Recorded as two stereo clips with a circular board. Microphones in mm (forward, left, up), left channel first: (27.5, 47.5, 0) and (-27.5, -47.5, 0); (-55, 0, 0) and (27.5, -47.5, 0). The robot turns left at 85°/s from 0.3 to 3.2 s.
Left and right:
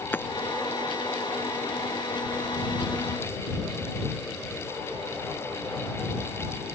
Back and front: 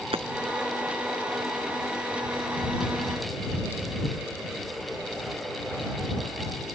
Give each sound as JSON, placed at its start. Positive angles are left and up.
{"t": 0.1, "sound": "hammering", "azimuth_deg": -10}